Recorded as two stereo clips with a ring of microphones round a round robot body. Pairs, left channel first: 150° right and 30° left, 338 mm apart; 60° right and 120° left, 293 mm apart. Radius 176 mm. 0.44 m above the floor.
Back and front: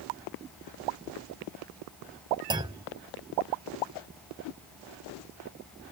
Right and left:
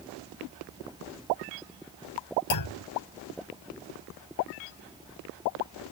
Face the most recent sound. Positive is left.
turn(degrees=-50)